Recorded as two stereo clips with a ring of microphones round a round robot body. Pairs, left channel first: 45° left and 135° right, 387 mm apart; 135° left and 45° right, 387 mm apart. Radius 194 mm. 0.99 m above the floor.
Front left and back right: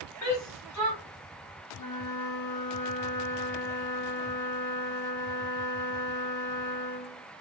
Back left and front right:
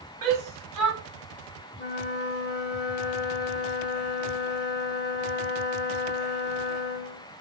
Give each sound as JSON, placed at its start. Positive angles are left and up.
{"t": 0.2, "sound": "a shout", "azimuth_deg": -5, "distance_m": 2.5}
{"t": 1.8, "sound": "a flute", "azimuth_deg": 75, "distance_m": 0.9}